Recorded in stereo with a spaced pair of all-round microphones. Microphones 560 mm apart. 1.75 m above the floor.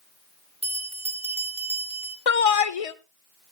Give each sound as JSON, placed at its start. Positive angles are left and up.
{"t": 0.6, "sound": "a bell", "side_deg": 10, "distance_m": 1.6}
{"t": 2.3, "sound": "a shout", "side_deg": 75, "distance_m": 0.8}